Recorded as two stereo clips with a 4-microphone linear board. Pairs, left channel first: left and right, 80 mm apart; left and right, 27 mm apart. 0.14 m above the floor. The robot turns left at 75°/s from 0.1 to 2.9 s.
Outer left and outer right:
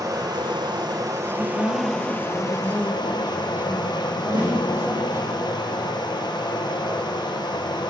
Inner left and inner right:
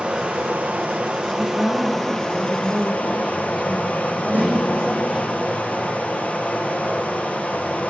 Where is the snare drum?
75° right (ahead or behind), 5.5 m.